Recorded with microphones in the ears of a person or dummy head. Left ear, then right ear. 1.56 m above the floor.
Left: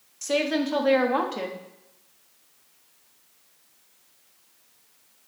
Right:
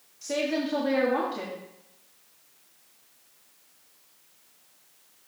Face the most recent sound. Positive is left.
turn(degrees=40)  # may be behind; listen again after turning